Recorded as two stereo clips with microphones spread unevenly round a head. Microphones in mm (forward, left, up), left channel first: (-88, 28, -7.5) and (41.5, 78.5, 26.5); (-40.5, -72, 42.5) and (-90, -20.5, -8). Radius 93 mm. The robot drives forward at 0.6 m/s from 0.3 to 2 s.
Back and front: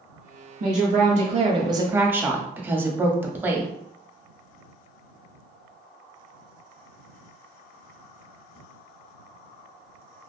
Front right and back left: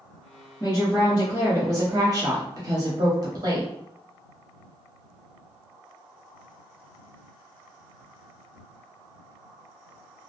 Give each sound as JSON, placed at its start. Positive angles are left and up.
{"t": 0.6, "sound": "a woman speaking", "azimuth_deg": 40, "distance_m": 0.9}